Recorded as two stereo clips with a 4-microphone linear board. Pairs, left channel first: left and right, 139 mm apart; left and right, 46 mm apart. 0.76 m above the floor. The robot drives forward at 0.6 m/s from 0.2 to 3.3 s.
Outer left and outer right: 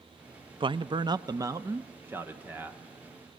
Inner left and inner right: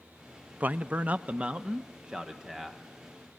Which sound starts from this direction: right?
A man speaking, at 0.6 s.